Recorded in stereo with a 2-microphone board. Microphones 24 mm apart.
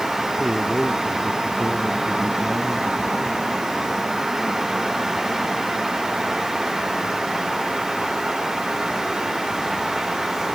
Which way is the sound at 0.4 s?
25° right (ahead or behind).